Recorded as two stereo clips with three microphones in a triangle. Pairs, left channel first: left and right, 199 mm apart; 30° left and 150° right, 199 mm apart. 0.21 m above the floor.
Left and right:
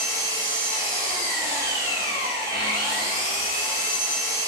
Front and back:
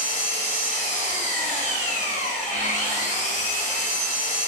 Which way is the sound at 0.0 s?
25° right.